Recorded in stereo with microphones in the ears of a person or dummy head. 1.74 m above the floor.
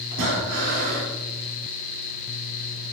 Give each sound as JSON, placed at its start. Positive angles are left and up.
{"t": 0.1, "sound": "breathing", "side_deg": -55, "distance_m": 3.5}